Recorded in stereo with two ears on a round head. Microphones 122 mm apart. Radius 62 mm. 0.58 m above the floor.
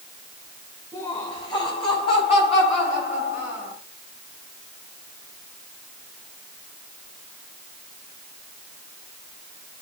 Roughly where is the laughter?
Left.